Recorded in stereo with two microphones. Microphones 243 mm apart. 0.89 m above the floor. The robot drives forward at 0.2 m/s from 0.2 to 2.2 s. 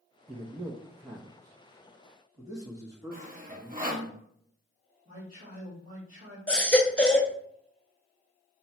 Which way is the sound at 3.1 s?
35° right (ahead or behind).